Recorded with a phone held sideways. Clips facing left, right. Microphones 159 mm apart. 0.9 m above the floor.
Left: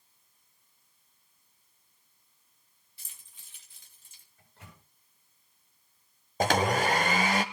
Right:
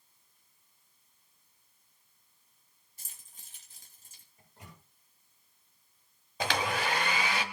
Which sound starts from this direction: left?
A blender, at 6.4 s.